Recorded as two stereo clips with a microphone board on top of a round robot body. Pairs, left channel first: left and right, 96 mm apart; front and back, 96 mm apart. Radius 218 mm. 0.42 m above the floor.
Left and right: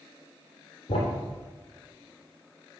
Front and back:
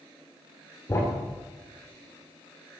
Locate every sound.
0.9 s a thud: 65° left, 3 m